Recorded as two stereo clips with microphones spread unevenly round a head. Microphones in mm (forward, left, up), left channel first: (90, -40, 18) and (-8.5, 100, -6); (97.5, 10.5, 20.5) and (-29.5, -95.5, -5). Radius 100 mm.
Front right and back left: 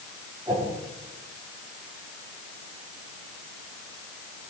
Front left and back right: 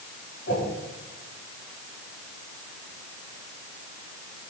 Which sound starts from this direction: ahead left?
A whoosh, at 0.5 s.